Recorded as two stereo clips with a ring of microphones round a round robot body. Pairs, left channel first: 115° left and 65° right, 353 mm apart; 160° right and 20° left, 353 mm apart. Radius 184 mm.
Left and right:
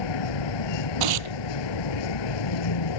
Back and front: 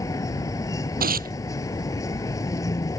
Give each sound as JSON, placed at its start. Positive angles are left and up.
{"t": 0.0, "sound": "a vehicle", "azimuth_deg": 120}
{"t": 1.0, "sound": "tearing paper", "azimuth_deg": -45}